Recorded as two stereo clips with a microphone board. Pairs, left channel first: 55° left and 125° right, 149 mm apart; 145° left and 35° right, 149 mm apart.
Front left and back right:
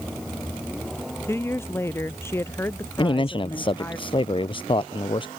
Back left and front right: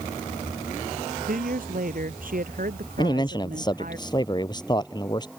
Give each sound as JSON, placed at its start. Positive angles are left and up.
{"t": 1.2, "sound": "a woman speaking", "azimuth_deg": -15}
{"t": 3.0, "sound": "a man speaking", "azimuth_deg": 95}